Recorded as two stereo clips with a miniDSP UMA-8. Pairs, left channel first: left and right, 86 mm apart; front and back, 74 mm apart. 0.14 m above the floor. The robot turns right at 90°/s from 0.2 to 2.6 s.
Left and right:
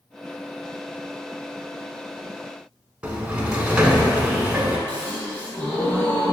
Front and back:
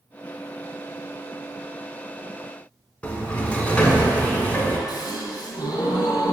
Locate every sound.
3.0 s a sliding door: 35° right, 0.9 m
4.9 s a gasp: 15° left, 1.3 m